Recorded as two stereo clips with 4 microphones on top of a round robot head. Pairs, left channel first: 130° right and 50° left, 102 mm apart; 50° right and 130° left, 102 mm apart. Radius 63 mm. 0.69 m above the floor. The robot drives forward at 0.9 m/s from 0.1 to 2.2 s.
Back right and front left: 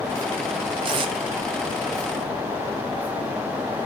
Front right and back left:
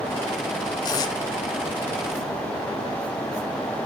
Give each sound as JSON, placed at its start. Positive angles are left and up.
{"t": 0.8, "sound": "tape being pulled", "azimuth_deg": 5, "distance_m": 1.3}